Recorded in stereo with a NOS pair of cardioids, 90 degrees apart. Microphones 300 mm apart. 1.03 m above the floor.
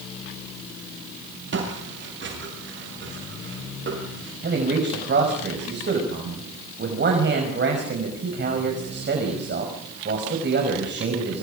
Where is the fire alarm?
No fire alarm in this recording.